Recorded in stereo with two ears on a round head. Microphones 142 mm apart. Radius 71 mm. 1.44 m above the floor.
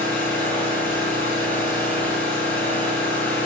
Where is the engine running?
10° left (ahead or behind), 9.5 m.